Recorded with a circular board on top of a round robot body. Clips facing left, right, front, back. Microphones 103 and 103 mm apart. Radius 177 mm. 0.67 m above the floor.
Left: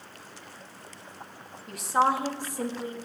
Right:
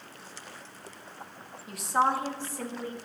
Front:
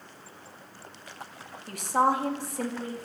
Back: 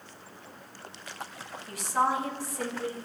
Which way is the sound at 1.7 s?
5° right.